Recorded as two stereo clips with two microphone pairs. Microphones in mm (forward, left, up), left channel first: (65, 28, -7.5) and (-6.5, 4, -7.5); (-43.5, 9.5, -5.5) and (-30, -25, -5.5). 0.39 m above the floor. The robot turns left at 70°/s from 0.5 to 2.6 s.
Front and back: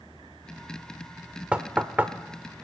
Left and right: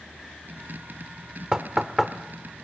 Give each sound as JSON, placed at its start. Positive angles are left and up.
{"t": 1.5, "sound": "knocking", "azimuth_deg": -110, "distance_m": 0.5}